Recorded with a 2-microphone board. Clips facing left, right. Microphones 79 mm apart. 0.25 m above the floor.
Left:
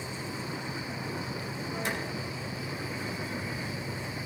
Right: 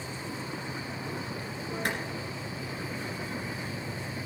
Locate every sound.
1.9 s a clap: 55° right (ahead or behind), 3 m